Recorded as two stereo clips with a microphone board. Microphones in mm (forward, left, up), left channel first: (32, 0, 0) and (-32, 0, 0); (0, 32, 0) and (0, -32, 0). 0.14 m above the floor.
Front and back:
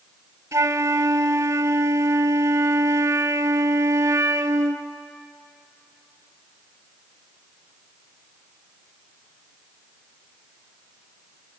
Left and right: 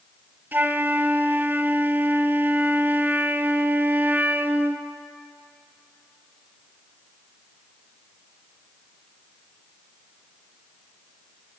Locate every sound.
0.5 s a flute: 145° right, 0.6 m